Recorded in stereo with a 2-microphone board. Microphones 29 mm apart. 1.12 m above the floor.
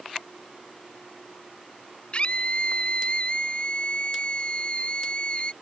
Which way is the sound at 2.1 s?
35° left (ahead or behind).